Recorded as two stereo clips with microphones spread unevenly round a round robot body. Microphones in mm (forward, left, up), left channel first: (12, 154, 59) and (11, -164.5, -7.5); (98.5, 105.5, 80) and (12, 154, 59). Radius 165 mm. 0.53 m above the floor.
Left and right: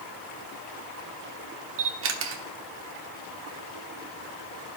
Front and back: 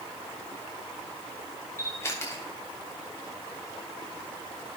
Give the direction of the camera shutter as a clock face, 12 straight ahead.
3 o'clock.